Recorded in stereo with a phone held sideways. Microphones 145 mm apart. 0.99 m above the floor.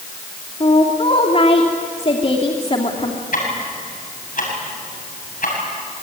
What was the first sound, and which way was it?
A woman speaking, 45° left (ahead or behind).